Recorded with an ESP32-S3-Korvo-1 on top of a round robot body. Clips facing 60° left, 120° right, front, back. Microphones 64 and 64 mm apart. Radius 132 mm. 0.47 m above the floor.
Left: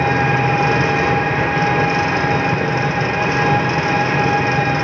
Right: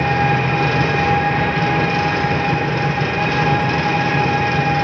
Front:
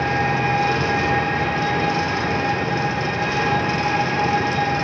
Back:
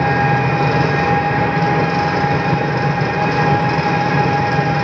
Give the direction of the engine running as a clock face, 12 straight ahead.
8 o'clock.